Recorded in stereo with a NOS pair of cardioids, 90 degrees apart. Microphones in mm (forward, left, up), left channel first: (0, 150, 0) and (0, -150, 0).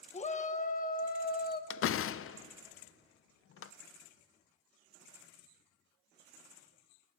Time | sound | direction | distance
0.1 | a shout | 25° left | 1.5 m
1.7 | a door slam | 50° left | 0.6 m